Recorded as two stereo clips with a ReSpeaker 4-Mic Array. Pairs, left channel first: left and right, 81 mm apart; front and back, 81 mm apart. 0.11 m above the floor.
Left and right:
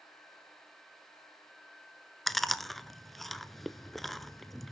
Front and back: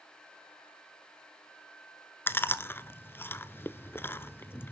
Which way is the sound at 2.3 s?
5° left.